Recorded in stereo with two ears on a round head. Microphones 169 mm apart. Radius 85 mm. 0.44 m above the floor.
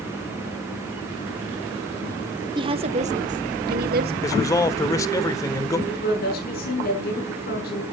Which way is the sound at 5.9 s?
50° left (ahead or behind).